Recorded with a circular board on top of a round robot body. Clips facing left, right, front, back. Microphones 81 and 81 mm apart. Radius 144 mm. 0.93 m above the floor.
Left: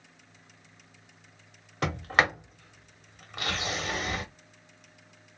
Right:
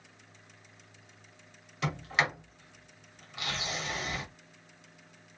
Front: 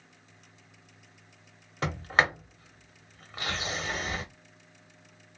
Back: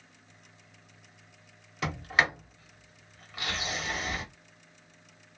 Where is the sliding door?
50° left, 1.2 m.